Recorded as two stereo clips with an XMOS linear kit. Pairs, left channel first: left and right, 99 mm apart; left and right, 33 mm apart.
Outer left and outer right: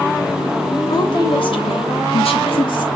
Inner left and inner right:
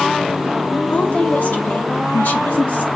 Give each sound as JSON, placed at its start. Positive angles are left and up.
{"t": 0.9, "sound": "a woman speaking", "side_deg": 45, "distance_m": 1.5}